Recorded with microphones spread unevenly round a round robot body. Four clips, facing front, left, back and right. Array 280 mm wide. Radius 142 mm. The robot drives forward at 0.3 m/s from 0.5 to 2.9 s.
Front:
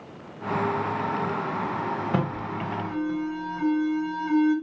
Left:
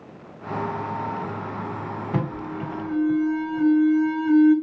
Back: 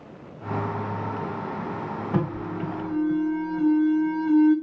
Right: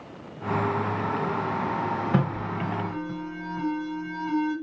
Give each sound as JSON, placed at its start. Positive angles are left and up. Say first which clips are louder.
{"t": 2.1, "sound": "an alarm", "louder": "right 1 dB, even", "azimuth_deg": 160, "distance_m": 2.0}